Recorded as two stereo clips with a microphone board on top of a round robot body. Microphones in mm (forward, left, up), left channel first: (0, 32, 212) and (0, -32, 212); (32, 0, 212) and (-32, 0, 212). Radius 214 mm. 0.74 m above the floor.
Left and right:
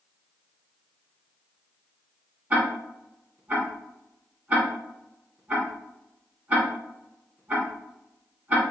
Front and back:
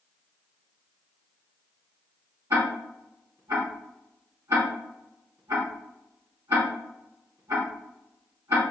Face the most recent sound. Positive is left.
turn(degrees=-155)